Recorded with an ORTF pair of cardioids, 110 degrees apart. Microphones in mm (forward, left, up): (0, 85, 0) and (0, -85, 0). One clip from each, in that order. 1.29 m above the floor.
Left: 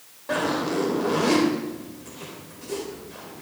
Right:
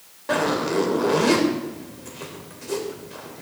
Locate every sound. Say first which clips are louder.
0.3 s a zipper: right 3 dB; 25° right, 3 m